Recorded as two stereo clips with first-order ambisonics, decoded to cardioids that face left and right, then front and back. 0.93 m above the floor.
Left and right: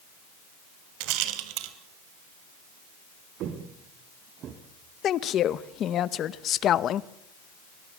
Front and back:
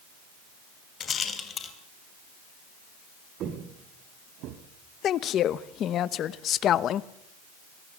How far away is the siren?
No siren in this recording.